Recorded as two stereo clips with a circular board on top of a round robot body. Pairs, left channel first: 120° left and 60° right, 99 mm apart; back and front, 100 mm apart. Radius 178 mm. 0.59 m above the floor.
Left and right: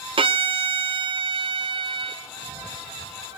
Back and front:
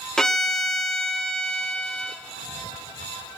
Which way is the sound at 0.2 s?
95° right.